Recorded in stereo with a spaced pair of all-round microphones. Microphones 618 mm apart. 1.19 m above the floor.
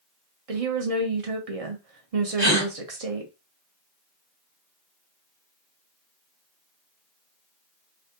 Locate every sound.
0.5 s a woman speaking: 65° right (ahead or behind), 0.9 m
2.4 s a gasp: 45° right (ahead or behind), 1.6 m